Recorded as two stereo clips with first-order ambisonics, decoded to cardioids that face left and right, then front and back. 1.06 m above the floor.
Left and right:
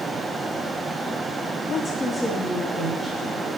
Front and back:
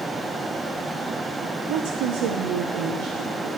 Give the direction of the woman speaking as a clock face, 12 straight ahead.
7 o'clock.